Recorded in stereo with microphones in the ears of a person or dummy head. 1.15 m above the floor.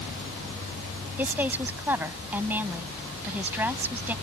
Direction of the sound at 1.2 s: 5° right (ahead or behind).